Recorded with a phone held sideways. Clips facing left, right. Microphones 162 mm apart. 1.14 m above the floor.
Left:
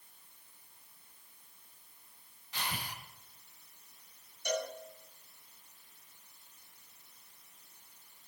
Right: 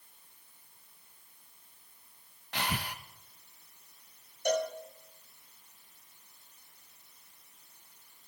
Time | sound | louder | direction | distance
2.5 | breathing | right 6 dB | 75° right (ahead or behind) | 0.8 m
4.5 | a cowbell | right 6 dB | 55° right (ahead or behind) | 2 m